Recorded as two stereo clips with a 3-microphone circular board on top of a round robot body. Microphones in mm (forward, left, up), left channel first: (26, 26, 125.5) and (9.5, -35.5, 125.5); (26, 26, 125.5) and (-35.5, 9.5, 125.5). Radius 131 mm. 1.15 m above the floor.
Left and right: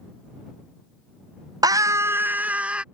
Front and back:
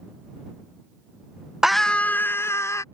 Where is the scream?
80° right; by 2.8 s 30° right.